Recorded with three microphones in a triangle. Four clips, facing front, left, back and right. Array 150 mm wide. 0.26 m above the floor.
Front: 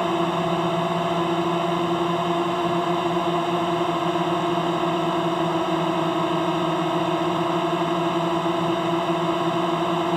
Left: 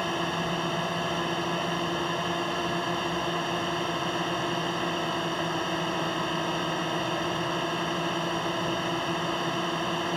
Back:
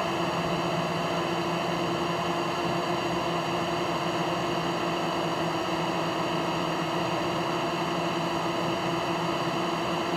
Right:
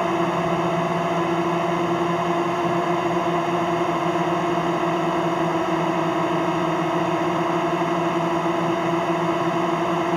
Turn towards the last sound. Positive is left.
turn(degrees=-50)